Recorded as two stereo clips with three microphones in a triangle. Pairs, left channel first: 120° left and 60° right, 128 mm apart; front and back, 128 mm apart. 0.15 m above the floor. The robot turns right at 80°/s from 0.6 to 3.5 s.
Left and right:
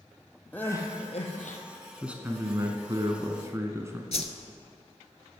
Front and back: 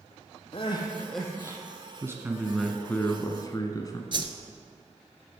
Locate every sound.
0.5 s crying: 45° left, 1.5 m; by 1.6 s 120° left, 1.5 m
2.0 s a man speaking: 140° right, 1.1 m; by 4.0 s 20° right, 1.1 m
4.1 s a whoosh: 135° left, 0.8 m